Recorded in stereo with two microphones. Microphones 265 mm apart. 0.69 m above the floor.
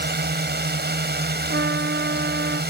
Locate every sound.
0.0 s a drone: 35° right (ahead or behind)
1.5 s a trumpet: 35° right (ahead or behind)